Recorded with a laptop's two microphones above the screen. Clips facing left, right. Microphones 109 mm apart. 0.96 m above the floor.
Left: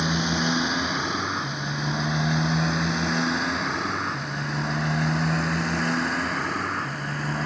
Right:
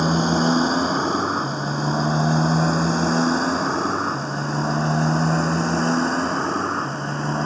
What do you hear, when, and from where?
0.0 s a motorcycle: 40° right (ahead or behind); by 7.5 s 30° right (ahead or behind)